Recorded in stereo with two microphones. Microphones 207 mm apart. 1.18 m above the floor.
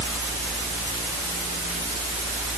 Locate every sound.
Only background noise.